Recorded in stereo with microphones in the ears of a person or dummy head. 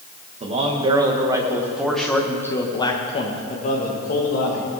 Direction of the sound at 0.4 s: 30° right (ahead or behind).